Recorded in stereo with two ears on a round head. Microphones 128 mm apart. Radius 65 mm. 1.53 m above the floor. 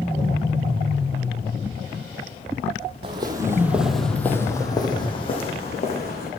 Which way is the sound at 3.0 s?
35° right (ahead or behind).